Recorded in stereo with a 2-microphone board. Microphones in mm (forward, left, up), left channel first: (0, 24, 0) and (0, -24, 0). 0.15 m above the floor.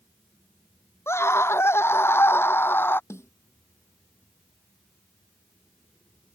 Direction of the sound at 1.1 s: 65° left (ahead or behind).